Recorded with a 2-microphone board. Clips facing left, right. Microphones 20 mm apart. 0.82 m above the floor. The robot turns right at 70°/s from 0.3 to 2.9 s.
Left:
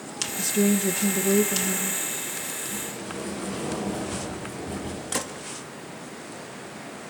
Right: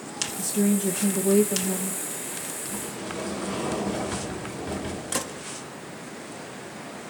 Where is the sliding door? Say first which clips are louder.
Even; 5° right (ahead or behind), 3.5 m; by 5.0 s 20° right (ahead or behind), 3.5 m.